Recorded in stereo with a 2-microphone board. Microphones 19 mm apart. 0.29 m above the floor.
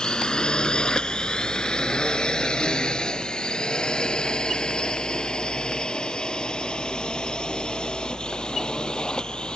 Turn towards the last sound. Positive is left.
turn(degrees=50)  # may be behind; listen again after turning